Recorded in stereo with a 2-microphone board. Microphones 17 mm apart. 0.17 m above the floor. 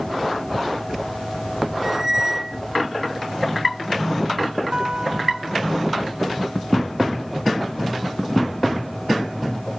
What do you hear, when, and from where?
1.8 s a squeak: 25° right (ahead or behind)
4.7 s a guitar: 55° right (ahead or behind)